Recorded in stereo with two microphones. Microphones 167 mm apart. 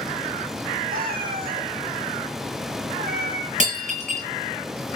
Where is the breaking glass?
50° right (ahead or behind), 5.5 m.